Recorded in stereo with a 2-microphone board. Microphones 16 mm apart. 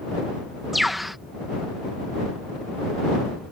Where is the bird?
5° right (ahead or behind).